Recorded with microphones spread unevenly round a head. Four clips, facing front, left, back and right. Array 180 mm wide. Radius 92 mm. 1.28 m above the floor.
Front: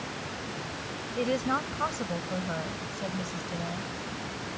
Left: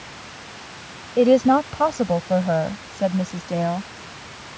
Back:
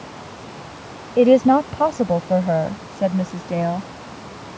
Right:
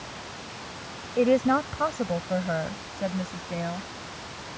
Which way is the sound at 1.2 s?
160° left.